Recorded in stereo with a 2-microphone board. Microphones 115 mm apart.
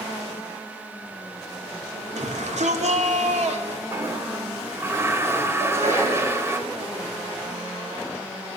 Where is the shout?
80° right, 3.5 m; by 3.8 s 65° right (ahead or behind), 3 m.